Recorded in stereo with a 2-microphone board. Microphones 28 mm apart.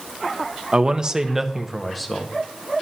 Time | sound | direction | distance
0.7 | a man speaking | 35° right (ahead or behind) | 0.6 m